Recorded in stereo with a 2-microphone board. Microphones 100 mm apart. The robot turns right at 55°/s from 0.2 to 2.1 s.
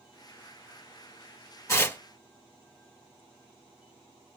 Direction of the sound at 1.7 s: 30° left (ahead or behind).